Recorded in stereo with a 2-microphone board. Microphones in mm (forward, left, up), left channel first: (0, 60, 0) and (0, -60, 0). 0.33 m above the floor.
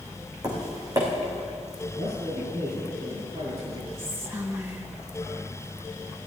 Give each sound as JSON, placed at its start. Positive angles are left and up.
{"t": 0.4, "sound": "tapping", "side_deg": -30, "distance_m": 4.5}
{"t": 1.9, "sound": "a man speaking", "side_deg": -65, "distance_m": 4.5}
{"t": 4.0, "sound": "whispering", "side_deg": -20, "distance_m": 1.5}